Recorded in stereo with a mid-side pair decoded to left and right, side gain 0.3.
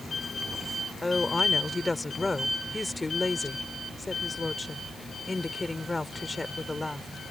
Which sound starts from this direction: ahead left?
A woman speaking, at 1.0 s.